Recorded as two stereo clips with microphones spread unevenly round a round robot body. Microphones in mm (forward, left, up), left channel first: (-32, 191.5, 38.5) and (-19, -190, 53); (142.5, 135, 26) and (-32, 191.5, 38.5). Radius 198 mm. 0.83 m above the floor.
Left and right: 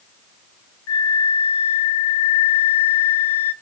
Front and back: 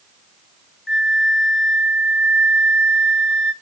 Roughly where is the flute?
Left.